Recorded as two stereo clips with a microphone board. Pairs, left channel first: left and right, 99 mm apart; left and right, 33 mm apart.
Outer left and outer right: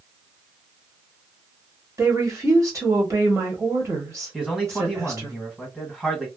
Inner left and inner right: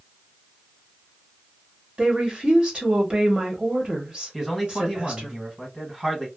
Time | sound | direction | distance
2.0 | a woman speaking | 30° right (ahead or behind) | 1.0 m
4.3 | a man speaking | 5° right (ahead or behind) | 1.6 m